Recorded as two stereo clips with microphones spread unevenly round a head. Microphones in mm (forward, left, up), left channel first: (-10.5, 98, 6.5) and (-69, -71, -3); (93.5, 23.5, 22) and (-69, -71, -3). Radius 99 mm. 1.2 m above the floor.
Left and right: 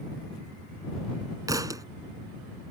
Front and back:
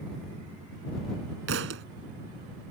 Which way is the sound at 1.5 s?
Straight behind.